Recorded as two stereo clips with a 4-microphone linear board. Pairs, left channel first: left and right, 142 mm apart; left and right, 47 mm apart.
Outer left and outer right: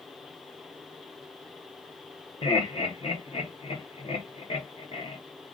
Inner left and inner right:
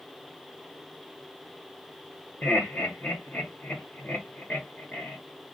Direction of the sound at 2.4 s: 35° left (ahead or behind).